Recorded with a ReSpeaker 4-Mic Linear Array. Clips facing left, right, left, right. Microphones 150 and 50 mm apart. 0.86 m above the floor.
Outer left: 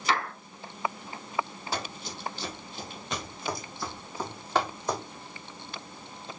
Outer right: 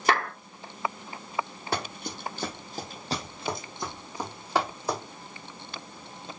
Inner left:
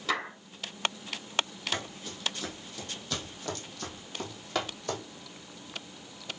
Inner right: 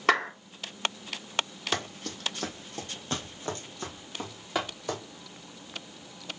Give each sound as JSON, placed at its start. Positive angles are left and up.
{"t": 0.1, "sound": "a clap", "side_deg": -60, "distance_m": 3.0}
{"t": 1.7, "sound": "running footsteps", "side_deg": -70, "distance_m": 2.0}